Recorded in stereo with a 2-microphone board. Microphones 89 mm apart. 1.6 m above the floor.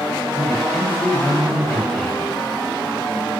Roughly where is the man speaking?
Centre.